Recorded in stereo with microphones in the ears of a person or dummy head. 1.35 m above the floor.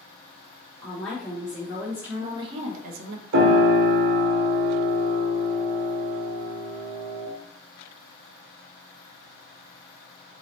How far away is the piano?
About 0.9 m.